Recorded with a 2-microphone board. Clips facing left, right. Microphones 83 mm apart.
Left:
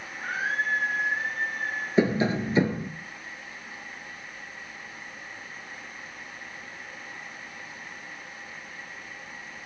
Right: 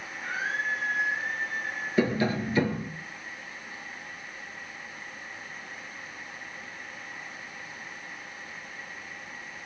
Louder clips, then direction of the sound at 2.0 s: Left 2 dB; 20° left (ahead or behind).